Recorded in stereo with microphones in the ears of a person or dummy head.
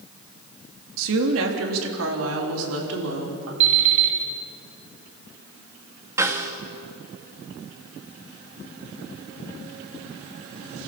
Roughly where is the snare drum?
Centre.